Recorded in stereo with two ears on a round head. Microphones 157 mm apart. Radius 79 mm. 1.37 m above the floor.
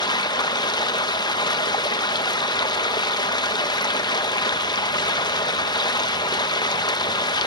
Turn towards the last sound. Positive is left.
turn(degrees=25)  # may be behind; listen again after turning